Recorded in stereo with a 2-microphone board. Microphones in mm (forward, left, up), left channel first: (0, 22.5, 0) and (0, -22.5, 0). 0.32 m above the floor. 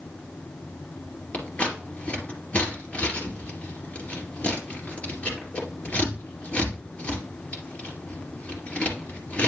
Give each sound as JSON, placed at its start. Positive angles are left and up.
{"t": 1.3, "sound": "scissors", "side_deg": 35, "distance_m": 2.5}